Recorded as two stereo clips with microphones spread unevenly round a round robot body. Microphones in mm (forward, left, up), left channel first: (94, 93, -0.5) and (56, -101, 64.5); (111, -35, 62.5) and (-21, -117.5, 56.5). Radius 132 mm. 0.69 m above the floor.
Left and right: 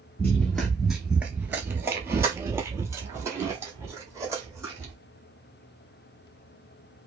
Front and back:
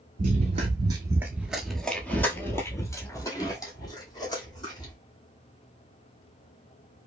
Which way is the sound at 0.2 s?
175° right.